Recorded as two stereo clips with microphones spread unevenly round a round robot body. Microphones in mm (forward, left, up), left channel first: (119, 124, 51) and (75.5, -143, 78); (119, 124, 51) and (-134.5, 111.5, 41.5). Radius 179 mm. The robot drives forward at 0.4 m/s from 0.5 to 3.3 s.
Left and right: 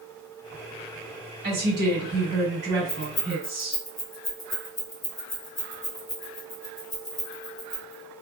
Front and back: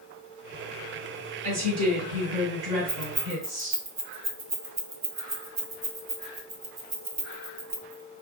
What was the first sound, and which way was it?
A woman speaking, 140° right.